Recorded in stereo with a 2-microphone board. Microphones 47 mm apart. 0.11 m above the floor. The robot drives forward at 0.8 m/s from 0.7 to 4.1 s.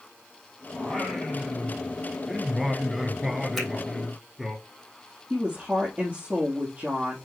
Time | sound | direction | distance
0.7 | singing | centre (ahead or behind) | 1.9 m
3.6 | a finger snap | 5° left (ahead or behind) | 3 m
5.3 | a woman speaking | 30° right (ahead or behind) | 2.5 m